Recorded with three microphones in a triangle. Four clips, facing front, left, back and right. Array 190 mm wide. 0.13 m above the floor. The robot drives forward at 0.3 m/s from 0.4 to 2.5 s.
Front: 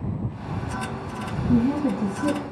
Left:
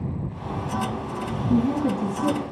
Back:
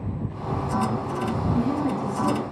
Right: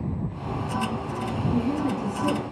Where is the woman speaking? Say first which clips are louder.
Left 5 dB, front 5 dB; 50° left, 5.5 m.